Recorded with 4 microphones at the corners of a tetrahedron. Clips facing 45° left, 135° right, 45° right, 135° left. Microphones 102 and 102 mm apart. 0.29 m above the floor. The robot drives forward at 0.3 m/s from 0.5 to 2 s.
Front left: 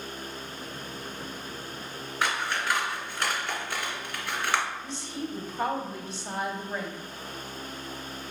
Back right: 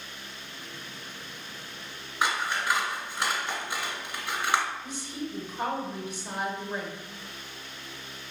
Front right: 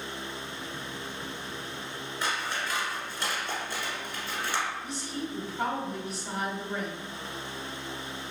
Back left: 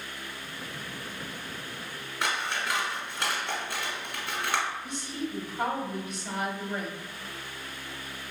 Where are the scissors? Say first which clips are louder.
Back right 1 dB, back left 2 dB; 155° left, 1.5 m.